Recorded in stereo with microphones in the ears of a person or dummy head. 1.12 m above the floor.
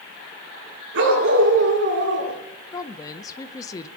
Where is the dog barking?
80° right, 5 m; by 2.4 s 70° right (ahead or behind), 4.5 m.